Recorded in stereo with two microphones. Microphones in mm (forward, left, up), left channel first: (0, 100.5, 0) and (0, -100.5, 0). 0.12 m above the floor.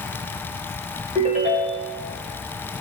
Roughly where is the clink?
No clink in this recording.